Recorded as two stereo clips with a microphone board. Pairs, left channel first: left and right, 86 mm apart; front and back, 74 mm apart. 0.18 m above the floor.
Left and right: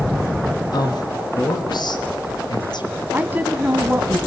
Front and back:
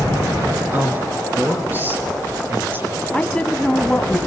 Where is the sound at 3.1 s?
55° right, 1.1 m.